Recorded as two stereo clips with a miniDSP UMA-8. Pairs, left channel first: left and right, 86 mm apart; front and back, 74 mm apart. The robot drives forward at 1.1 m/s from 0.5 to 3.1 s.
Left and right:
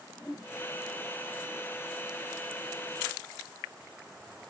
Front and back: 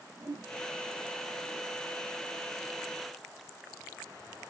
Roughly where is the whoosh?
Behind left.